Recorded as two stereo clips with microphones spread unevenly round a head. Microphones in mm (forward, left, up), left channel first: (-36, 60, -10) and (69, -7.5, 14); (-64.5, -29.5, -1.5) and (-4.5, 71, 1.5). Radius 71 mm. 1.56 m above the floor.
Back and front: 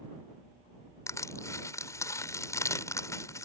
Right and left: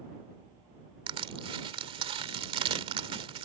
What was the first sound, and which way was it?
Crushing, 80° left.